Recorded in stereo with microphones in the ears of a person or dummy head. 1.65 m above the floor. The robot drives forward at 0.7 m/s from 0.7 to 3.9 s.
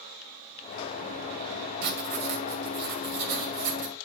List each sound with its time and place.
1.8 s writing: 55° right (ahead or behind), 2.5 m; by 3.9 s 50° right (ahead or behind), 2.5 m